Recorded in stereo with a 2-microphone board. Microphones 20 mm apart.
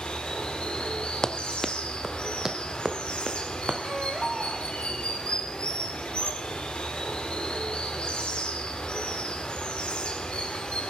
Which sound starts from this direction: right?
A baby crying, at 3.9 s.